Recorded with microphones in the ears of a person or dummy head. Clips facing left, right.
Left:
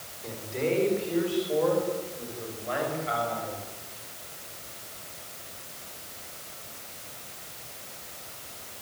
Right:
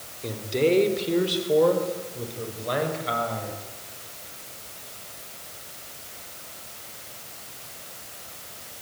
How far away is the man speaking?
About 4.5 m.